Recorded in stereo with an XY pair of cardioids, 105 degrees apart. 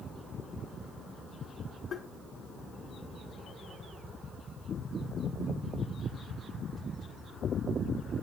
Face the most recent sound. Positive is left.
turn(degrees=50)